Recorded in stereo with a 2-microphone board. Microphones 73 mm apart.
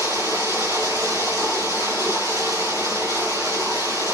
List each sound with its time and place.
0.0 s running water: 70° right (ahead or behind), 2.5 m